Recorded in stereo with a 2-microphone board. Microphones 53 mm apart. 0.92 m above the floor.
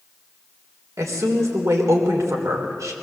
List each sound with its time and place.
1.0 s a woman speaking: 75° right (ahead or behind), 3.5 m